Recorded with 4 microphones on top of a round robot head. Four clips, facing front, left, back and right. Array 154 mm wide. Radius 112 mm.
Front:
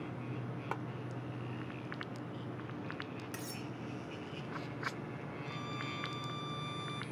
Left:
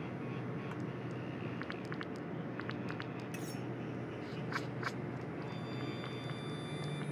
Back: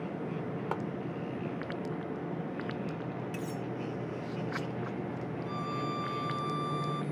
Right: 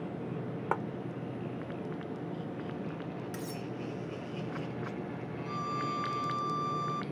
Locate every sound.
0.7 s a clap: 105° right
3.3 s cutlery clinking: 55° right
5.5 s a violin: 120° right